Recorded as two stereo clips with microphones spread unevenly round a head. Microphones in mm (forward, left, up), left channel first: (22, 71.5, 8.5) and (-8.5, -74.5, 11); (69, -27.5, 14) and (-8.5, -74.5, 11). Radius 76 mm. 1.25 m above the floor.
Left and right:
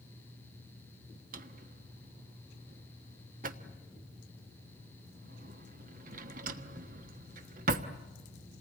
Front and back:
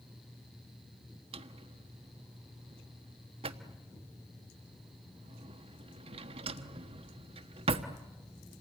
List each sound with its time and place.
1.3 s a drawer: 140° right, 1.3 m